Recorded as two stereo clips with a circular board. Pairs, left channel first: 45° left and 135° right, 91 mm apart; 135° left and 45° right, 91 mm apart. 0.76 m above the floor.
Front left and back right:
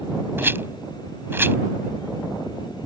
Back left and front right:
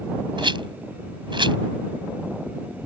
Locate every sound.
0.4 s a rattle: 70° right